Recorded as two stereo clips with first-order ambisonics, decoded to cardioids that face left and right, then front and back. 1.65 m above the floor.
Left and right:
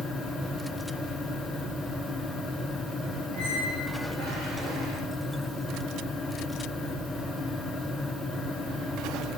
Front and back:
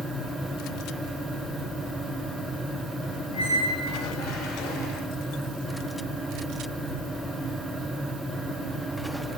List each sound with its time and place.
3.3 s a squeak: 40° right, 7 m